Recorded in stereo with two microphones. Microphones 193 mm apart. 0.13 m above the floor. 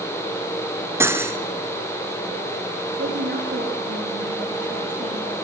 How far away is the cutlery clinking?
About 1.1 m.